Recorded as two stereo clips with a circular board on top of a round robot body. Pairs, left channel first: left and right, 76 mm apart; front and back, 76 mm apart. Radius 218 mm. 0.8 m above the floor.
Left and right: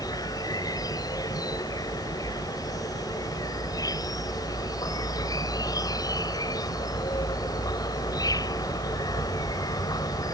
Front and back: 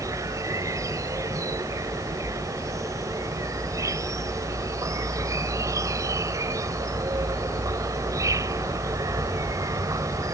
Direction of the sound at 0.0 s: 130° left.